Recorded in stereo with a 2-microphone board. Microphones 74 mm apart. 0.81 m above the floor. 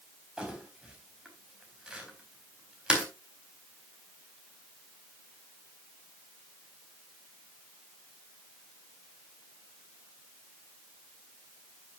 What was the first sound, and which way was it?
Crumpling, 10° right (ahead or behind).